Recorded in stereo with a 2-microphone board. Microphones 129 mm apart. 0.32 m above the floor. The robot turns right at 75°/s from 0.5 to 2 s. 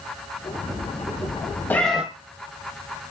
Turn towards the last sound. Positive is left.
turn(degrees=-5)  # may be behind; listen again after turning